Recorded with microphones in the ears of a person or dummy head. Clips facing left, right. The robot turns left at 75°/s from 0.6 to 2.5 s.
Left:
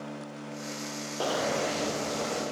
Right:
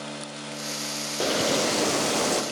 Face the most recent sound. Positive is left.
turn(degrees=-125)